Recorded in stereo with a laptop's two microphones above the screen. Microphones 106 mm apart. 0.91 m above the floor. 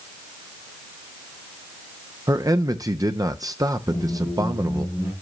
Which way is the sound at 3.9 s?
20° right (ahead or behind).